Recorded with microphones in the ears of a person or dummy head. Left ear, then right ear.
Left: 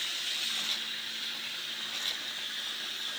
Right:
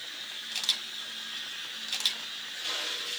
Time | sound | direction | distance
0.5 | a camera shutter | 45° right (ahead or behind) | 1.8 m